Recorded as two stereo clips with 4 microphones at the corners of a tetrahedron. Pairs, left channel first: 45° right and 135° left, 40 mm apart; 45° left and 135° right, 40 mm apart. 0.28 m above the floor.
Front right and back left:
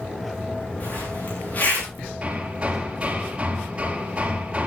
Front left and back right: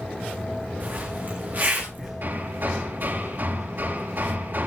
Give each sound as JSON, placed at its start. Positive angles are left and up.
{"t": 0.8, "sound": "a zipper", "azimuth_deg": -95, "distance_m": 7.5}
{"t": 2.2, "sound": "hammering", "azimuth_deg": -160, "distance_m": 4.5}